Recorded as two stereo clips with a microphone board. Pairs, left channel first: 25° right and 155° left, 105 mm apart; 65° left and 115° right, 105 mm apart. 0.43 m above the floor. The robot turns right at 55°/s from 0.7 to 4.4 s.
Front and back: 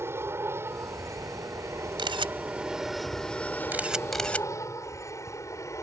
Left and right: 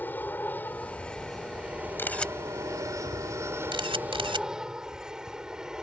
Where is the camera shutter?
130° left; by 4.5 s 95° right.